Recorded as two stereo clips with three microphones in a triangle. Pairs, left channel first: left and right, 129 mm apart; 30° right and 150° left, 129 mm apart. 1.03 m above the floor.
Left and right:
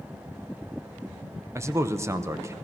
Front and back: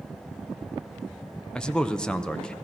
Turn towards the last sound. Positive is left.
turn(degrees=-105)